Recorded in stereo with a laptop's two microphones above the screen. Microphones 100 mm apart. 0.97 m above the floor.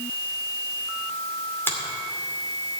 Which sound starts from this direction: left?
A finger snap, at 1.7 s.